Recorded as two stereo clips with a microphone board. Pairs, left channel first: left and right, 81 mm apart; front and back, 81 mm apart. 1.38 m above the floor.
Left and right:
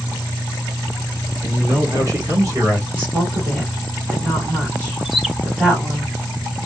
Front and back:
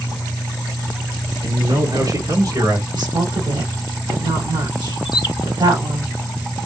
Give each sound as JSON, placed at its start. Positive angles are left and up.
{"t": 1.4, "sound": "a man speaking", "azimuth_deg": -150, "distance_m": 1.1}
{"t": 2.9, "sound": "a woman speaking", "azimuth_deg": -155, "distance_m": 3.0}
{"t": 5.0, "sound": "a bird", "azimuth_deg": 0, "distance_m": 0.6}